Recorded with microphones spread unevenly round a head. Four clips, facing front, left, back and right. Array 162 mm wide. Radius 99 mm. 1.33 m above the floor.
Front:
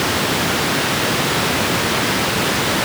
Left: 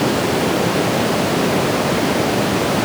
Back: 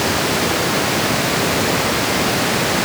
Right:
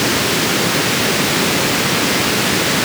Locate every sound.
Only background noise.